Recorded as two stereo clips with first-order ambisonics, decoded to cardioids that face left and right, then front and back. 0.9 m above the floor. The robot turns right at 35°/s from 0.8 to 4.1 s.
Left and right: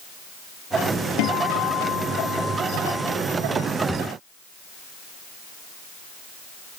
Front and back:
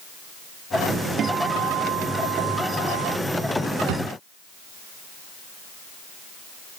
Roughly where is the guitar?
Behind left.